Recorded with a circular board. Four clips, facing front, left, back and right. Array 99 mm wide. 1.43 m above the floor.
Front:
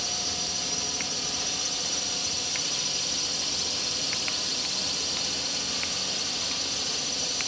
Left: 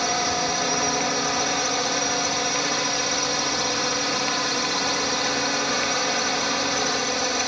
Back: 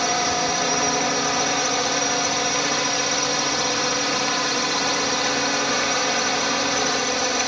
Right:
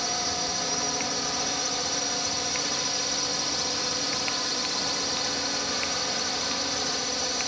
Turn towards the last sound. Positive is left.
turn(degrees=155)